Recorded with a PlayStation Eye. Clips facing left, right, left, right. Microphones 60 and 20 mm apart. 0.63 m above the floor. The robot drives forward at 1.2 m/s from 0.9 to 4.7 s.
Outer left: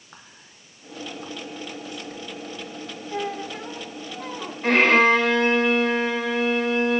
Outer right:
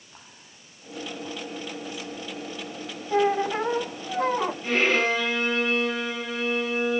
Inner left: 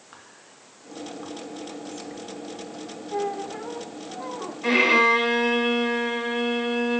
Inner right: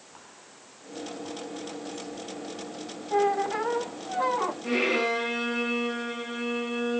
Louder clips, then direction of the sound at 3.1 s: Outer right 8 dB, inner right 5 dB; 30° right (ahead or behind).